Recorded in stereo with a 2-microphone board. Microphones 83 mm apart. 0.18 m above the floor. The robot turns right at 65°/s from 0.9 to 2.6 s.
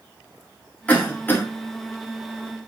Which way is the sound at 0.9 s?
20° left (ahead or behind).